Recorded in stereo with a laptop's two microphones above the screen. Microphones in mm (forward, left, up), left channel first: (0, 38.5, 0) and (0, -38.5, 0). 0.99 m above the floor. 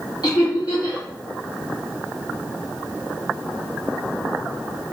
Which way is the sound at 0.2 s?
60° left (ahead or behind).